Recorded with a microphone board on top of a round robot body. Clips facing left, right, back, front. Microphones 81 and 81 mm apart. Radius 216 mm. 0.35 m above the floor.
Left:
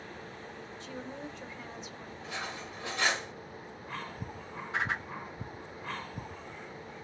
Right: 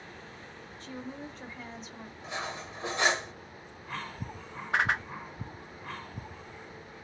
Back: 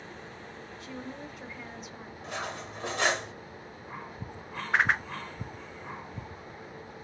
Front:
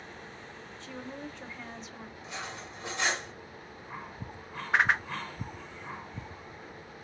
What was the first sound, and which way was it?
A woman speaking, 100° right.